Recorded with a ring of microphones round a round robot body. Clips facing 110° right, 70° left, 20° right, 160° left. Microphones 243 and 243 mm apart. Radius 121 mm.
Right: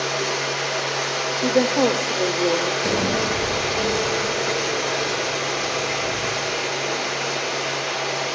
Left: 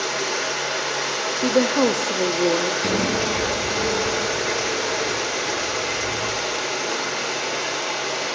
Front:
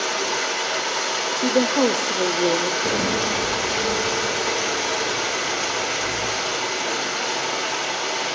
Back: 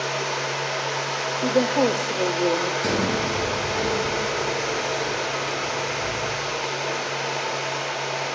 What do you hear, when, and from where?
0.0 s running water: 15° left, 2.5 m
1.4 s a woman speaking: 25° left, 0.6 m
2.8 s a sliding door: 110° left, 8 m